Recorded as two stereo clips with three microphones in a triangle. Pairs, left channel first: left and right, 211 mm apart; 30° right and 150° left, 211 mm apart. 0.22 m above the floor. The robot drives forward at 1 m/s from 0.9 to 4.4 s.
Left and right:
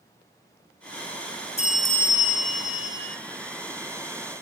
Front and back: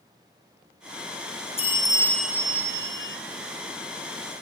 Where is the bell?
30° left, 1.2 m; by 3.2 s 135° left, 0.9 m.